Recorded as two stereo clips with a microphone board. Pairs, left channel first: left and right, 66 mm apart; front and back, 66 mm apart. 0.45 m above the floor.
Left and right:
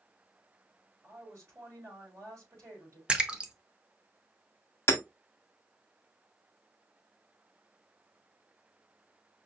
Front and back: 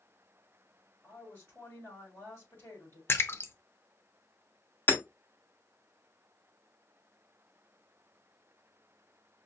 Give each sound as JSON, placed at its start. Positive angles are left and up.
{"t": 1.0, "sound": "a woman speaking", "azimuth_deg": -50, "distance_m": 3.5}
{"t": 3.1, "sound": "a splash", "azimuth_deg": -25, "distance_m": 0.7}
{"t": 4.9, "sound": "hammering", "azimuth_deg": 50, "distance_m": 1.2}